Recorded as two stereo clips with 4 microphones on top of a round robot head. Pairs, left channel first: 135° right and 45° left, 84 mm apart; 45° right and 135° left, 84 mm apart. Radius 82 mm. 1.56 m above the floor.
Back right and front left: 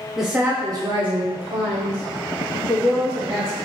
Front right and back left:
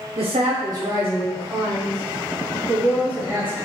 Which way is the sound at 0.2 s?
135° left.